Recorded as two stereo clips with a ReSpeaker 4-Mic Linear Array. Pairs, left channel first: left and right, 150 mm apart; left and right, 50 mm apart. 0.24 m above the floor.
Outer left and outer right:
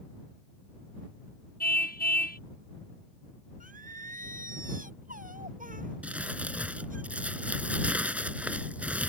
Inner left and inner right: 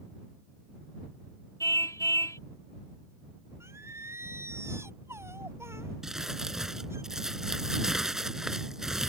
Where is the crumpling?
10° right (ahead or behind).